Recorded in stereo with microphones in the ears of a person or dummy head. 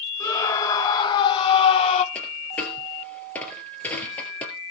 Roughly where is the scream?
Left.